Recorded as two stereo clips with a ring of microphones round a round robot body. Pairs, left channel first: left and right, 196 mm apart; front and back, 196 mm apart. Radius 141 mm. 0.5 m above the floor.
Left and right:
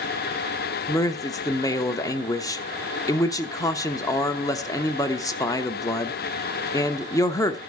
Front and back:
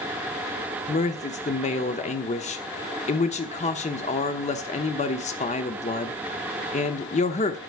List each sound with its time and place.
0.9 s a man speaking: 30° left, 0.8 m